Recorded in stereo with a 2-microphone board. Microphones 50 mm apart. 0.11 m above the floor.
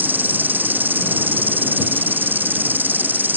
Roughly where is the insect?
Right.